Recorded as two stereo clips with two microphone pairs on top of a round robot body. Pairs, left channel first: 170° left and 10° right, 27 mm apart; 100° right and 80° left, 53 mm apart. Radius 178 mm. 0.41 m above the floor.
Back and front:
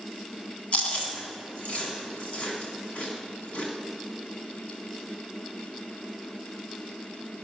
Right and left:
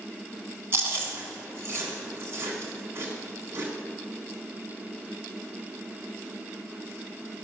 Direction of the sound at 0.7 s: 130° left.